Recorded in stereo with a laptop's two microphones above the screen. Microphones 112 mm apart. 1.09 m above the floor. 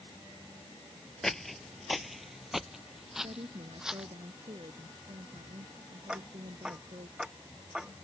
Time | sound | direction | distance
1.2 | footsteps | 5° left (ahead or behind) | ?
3.2 | a woman speaking | 65° right (ahead or behind) | ?
6.1 | ticking | 5° right (ahead or behind) | ?